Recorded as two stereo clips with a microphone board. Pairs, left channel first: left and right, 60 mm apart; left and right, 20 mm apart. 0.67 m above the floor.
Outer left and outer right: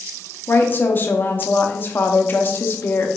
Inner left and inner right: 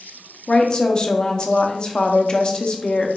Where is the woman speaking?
35° left (ahead or behind), 0.6 m.